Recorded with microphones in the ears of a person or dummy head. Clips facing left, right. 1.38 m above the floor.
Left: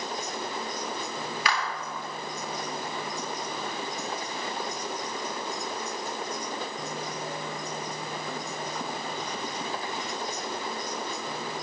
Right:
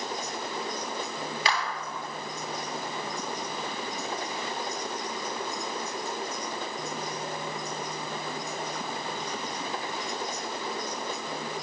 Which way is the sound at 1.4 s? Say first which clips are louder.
Right 1 dB; 25° right (ahead or behind).